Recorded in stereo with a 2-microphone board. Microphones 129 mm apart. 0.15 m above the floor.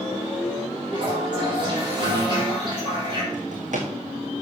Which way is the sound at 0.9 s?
35° right (ahead or behind).